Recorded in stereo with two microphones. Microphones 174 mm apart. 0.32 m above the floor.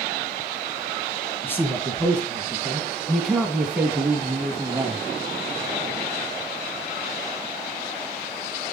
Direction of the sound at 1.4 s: 10° left (ahead or behind).